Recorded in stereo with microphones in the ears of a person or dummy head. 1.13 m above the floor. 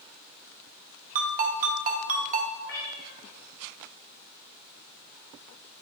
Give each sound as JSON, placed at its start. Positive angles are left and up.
{"t": 1.1, "sound": "a ringtone", "side_deg": -35, "distance_m": 0.8}
{"t": 2.6, "sound": "a cat meowing", "side_deg": 45, "distance_m": 2.5}